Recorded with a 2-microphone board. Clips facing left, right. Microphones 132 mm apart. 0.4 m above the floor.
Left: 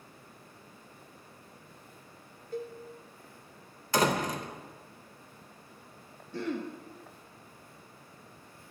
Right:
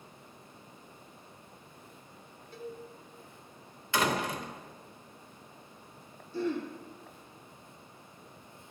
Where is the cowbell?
45° left (ahead or behind), 0.7 m.